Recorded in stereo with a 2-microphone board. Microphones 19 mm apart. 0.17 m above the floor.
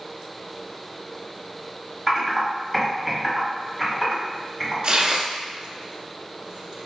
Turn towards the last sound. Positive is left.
turn(degrees=-65)  # may be behind; listen again after turning